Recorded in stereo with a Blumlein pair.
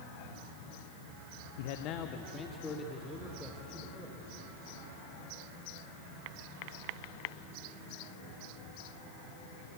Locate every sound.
1.6 s a man speaking: 55° left, 1.2 m; by 4.3 s straight ahead, 4.5 m